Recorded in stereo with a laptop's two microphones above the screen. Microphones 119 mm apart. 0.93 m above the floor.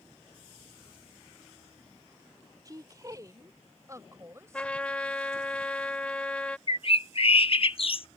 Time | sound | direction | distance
2.6 | a woman speaking | 30° right (ahead or behind) | ?
4.5 | a trumpet | 10° left (ahead or behind) | ?
6.7 | a bird | 50° left (ahead or behind) | ?